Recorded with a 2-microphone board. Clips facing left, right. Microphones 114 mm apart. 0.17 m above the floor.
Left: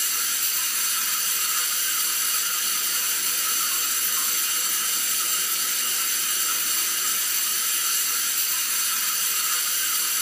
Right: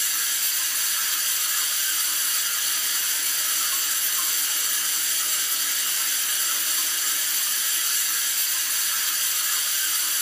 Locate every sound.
0.0 s running water: 60° left (ahead or behind), 4.5 m